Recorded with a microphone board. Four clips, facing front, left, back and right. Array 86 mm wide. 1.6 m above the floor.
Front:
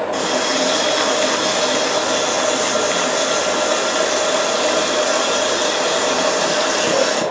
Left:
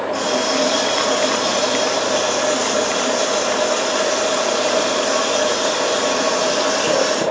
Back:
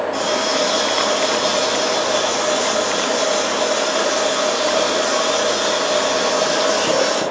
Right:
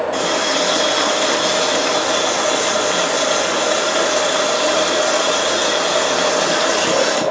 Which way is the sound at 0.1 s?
65° right.